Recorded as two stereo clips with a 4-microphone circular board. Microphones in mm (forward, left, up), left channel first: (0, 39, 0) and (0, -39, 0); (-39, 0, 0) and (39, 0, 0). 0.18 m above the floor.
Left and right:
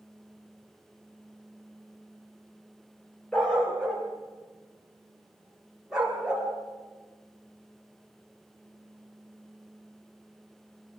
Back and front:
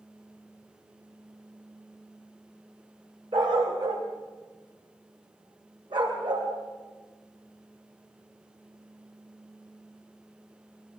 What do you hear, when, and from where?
3.3 s a dog barking: 5° left, 6.5 m; by 6.5 s 10° right, 8.5 m